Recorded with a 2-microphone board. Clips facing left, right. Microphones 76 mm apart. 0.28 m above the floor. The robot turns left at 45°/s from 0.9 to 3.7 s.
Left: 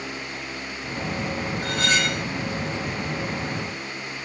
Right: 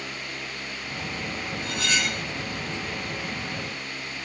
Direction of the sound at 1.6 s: 50° left (ahead or behind).